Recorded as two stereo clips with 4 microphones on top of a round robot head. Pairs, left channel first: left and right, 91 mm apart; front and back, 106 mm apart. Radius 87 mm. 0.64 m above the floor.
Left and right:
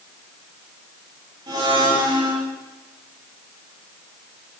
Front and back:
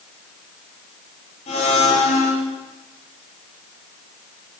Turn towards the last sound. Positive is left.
turn(degrees=-35)